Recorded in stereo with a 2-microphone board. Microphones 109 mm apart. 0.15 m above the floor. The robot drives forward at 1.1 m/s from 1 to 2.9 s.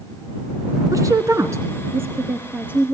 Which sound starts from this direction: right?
A woman speaking, at 0.9 s.